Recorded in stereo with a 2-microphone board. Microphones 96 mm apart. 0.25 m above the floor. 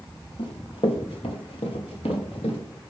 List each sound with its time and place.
0.4 s running footsteps: 70° left (ahead or behind), 1.9 m; by 2.6 s 85° left, 3 m